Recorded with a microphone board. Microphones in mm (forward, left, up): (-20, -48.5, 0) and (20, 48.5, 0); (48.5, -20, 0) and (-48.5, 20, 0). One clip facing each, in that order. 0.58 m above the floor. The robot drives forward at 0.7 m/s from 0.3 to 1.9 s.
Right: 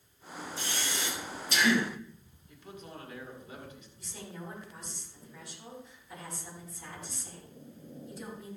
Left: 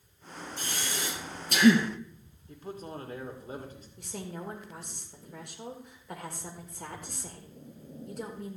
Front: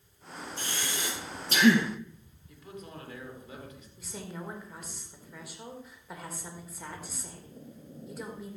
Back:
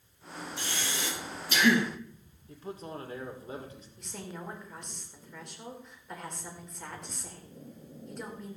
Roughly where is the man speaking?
Left.